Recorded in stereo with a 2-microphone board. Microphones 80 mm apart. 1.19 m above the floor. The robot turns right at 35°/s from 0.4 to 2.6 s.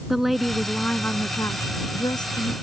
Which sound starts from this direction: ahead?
A woman speaking, at 0.1 s.